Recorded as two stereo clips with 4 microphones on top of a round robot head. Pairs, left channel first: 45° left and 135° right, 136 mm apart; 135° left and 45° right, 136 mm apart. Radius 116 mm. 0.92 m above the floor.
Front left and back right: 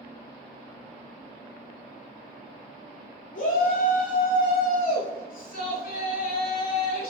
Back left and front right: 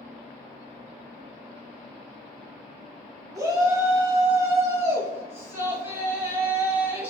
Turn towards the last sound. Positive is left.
turn(degrees=30)